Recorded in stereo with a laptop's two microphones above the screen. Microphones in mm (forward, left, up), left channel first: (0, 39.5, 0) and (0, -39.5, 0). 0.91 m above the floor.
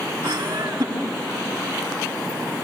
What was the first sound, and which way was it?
Laughter, 30° right (ahead or behind).